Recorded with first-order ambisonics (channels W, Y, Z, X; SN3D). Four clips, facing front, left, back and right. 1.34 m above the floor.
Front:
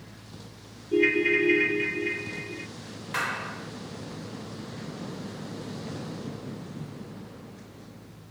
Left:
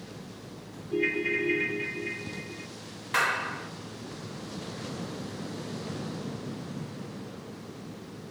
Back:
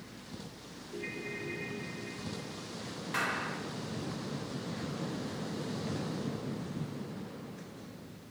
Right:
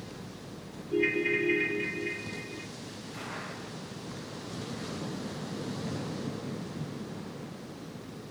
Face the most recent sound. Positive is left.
turn(degrees=80)